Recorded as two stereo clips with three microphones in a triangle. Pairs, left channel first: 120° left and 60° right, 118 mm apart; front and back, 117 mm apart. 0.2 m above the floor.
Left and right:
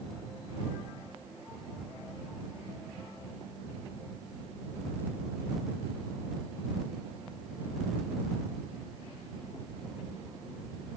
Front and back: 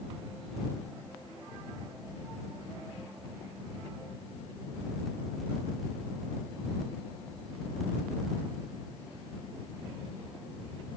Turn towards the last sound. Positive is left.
No sound to turn to.